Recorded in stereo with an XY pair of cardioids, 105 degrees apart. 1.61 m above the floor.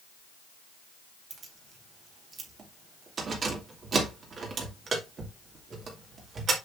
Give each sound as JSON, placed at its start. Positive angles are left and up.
{"t": 1.3, "sound": "keys jangling", "azimuth_deg": -50, "distance_m": 2.5}